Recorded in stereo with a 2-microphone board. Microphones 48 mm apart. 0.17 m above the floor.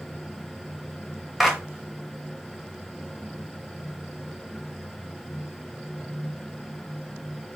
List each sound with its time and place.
1.4 s a clap: 5° right (ahead or behind), 1.6 m